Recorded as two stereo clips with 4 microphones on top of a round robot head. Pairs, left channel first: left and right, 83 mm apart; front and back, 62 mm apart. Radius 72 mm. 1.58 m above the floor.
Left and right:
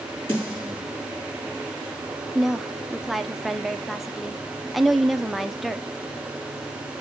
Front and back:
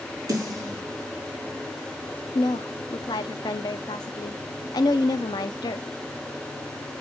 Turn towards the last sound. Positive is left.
turn(degrees=0)